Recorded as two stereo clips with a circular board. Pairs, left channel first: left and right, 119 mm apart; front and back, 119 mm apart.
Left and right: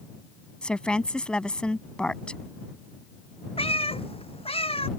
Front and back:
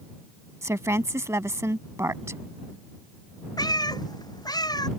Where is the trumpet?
I don't hear a trumpet.